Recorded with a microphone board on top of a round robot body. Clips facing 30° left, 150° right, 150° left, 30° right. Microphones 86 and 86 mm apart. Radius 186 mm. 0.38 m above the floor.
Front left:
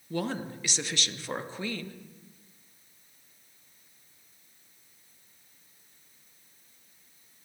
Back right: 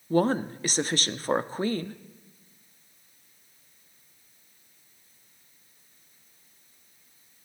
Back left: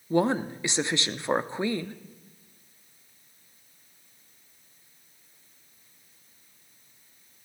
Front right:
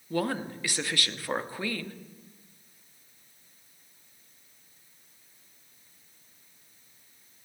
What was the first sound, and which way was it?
A woman speaking, 155° right.